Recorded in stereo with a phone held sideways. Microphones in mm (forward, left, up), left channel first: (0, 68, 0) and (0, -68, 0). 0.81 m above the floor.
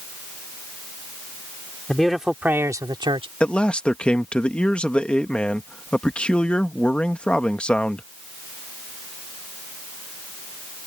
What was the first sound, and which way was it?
A man speaking, 5° left (ahead or behind).